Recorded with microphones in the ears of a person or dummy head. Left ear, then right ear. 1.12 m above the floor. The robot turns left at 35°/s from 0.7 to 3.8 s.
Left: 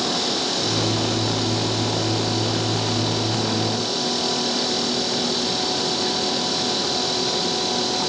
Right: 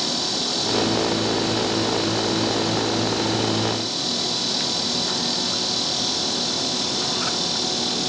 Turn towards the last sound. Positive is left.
No sound to turn to.